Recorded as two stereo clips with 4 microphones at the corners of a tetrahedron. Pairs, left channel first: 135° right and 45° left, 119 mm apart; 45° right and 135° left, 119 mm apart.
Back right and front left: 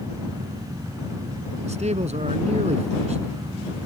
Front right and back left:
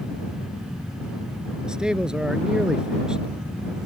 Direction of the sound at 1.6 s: 50° left.